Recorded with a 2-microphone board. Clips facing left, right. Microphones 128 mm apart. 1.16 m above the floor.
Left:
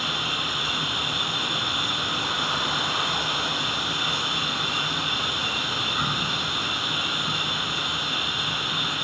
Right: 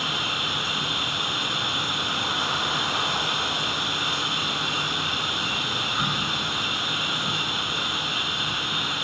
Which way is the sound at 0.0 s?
70° right (ahead or behind).